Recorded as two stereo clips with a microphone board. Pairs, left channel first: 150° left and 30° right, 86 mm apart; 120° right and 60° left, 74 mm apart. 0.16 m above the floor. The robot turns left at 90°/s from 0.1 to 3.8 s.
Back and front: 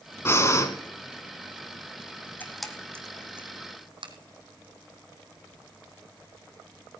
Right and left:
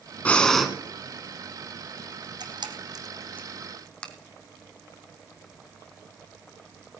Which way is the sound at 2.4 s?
80° left.